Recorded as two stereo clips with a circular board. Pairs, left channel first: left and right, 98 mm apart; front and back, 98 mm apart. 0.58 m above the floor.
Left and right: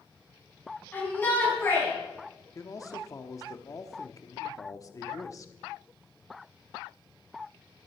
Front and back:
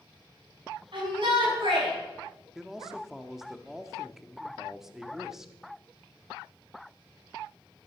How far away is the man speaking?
About 1.0 m.